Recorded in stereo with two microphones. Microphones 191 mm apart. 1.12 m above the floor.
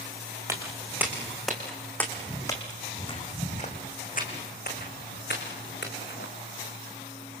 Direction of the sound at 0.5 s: 15° right (ahead or behind).